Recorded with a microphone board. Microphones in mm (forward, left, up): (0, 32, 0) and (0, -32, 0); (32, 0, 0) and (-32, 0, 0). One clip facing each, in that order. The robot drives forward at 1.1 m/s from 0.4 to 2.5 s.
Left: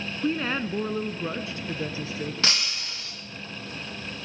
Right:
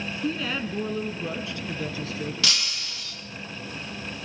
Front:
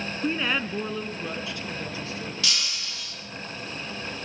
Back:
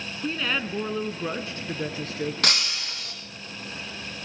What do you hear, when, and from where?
0.2 s a woman speaking: 70° left, 1.3 m; by 2.3 s 155° left, 2 m
2.4 s breaking glass: 145° left, 4.5 m